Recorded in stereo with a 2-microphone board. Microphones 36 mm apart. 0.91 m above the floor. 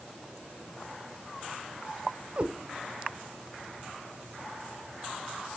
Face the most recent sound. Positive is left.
turn(degrees=-40)  # may be behind; listen again after turning